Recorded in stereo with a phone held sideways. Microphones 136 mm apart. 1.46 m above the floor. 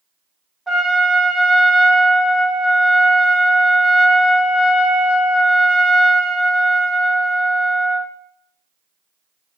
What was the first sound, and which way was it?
A trumpet, centre (ahead or behind).